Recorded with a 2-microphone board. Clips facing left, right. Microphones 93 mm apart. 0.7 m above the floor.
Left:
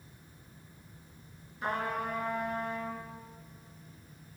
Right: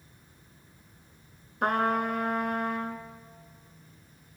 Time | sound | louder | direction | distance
1.6 | a trumpet | right 7 dB | 60° right (ahead or behind) | 2 m